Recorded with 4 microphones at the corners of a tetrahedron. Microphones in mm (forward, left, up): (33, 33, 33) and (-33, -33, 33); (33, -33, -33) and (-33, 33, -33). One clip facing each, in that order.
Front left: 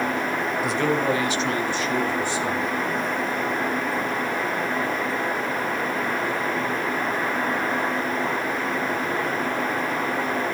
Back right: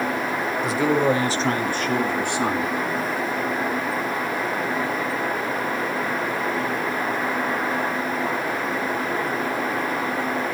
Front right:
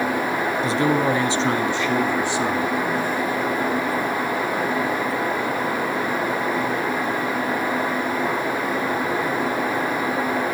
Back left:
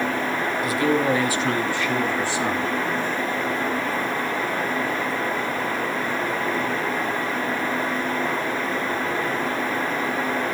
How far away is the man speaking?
About 1.1 m.